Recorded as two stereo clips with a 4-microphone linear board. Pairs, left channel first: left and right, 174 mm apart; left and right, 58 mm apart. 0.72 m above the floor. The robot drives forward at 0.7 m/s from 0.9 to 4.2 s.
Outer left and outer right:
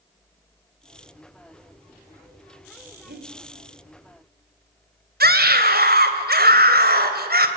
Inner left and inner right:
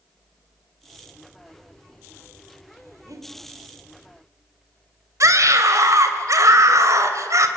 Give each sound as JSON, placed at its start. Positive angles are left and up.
{"t": 3.0, "sound": "breathing", "side_deg": -70, "distance_m": 3.0}
{"t": 5.2, "sound": "a scream", "side_deg": -65, "distance_m": 3.0}